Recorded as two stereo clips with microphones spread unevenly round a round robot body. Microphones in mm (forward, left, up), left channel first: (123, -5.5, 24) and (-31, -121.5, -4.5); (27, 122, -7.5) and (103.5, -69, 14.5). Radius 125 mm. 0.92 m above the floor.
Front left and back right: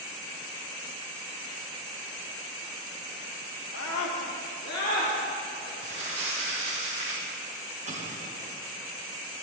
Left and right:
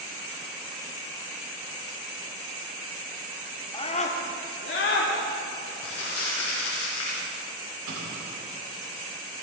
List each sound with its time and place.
3.7 s a scream: 45° left, 2 m; by 5.7 s 115° left, 3 m
5.8 s crumpling: 150° left, 5 m
7.9 s an explosion: 95° right, 3.5 m